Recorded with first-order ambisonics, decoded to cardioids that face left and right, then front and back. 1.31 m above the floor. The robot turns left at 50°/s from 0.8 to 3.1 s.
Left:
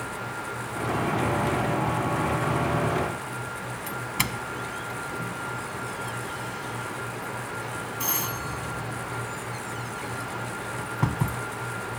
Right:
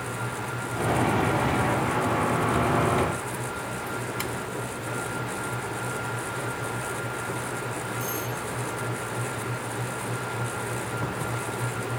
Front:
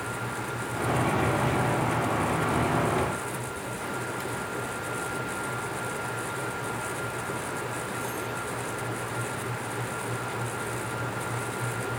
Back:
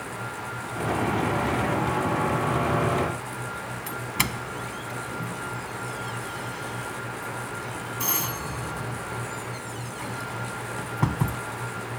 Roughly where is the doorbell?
Behind left.